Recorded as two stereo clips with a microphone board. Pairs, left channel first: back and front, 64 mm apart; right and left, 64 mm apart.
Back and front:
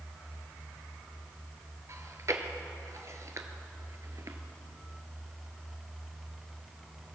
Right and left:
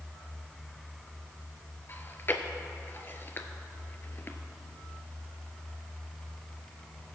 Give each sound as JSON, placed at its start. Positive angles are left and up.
{"t": 1.9, "sound": "chewing", "azimuth_deg": -35, "distance_m": 0.7}